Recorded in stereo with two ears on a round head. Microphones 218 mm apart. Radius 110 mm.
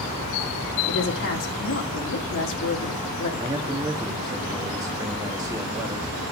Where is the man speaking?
15° right (ahead or behind), 1.0 m.